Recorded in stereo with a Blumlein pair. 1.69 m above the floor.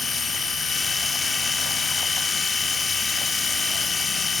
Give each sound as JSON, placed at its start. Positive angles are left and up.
{"t": 0.0, "sound": "a machine running", "azimuth_deg": 15, "distance_m": 0.8}